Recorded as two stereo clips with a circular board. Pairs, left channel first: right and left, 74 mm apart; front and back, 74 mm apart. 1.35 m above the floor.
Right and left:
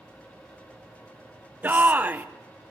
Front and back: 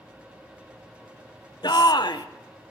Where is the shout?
25° left, 1.0 m.